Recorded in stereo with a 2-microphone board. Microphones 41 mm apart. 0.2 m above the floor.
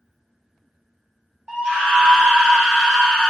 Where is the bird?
I don't hear a bird.